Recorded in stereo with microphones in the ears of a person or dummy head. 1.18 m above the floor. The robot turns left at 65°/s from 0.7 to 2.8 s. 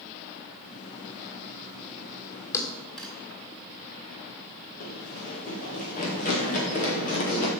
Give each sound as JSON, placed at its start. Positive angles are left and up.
{"t": 2.5, "sound": "a thud", "side_deg": 20, "distance_m": 2.5}
{"t": 4.8, "sound": "running footsteps", "side_deg": 45, "distance_m": 2.5}